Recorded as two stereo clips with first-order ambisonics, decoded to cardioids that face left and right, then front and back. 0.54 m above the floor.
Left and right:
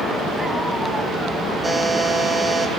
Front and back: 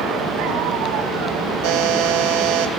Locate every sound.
1.6 s a buzzer: 170° right, 3.5 m